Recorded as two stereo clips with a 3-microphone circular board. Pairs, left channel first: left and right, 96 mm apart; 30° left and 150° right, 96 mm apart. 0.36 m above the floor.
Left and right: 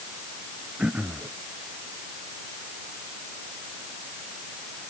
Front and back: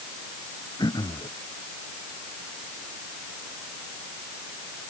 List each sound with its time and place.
0.8 s throat clearing: 15° right